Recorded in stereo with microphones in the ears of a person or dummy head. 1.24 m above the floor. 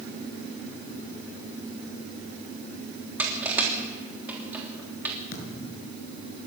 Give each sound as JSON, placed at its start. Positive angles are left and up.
{"t": 3.2, "sound": "crushing", "side_deg": -5, "distance_m": 3.0}
{"t": 5.3, "sound": "a thud", "side_deg": 55, "distance_m": 5.5}